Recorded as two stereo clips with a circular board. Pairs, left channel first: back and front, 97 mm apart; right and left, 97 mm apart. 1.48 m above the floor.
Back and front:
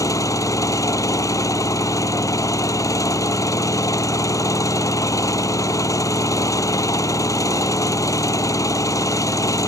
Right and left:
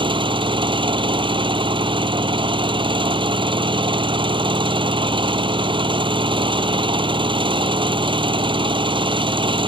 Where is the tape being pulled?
I don't hear tape being pulled.